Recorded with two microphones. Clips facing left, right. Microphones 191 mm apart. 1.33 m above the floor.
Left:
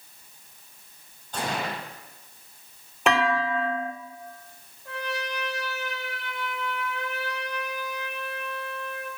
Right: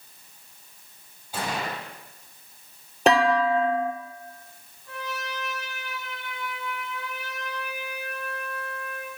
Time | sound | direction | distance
1.3 | a gunshot | 10° right (ahead or behind) | 7.5 m
3.1 | a clunk | 35° right (ahead or behind) | 1.7 m
4.8 | a trumpet | 80° left | 3.5 m